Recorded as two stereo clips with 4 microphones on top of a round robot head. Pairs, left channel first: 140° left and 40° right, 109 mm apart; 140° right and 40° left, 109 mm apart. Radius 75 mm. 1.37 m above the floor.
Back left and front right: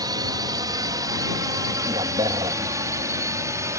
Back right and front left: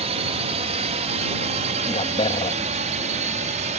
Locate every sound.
0.0 s a drone: 15° left; by 3.8 s 25° left
1.9 s a man speaking: 95° right